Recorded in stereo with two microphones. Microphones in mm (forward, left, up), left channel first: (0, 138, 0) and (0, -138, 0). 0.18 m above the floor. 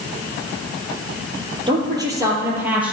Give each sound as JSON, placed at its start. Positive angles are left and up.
{"t": 1.7, "sound": "a woman speaking", "side_deg": -15, "distance_m": 4.0}